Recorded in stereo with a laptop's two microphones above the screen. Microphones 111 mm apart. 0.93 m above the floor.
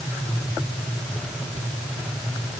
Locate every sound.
Only background noise.